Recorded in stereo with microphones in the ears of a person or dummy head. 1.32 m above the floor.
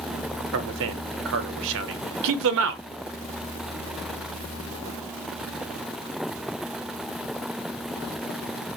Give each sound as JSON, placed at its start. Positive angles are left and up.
{"t": 0.5, "sound": "a man speaking", "side_deg": -70, "distance_m": 0.8}